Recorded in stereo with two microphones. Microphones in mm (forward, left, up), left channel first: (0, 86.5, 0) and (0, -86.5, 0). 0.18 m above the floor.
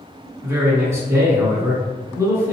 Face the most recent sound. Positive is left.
turn(degrees=-15)  # may be behind; listen again after turning